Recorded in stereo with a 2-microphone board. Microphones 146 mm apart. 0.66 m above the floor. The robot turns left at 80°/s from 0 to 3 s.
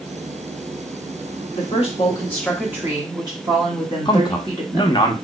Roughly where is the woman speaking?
Left.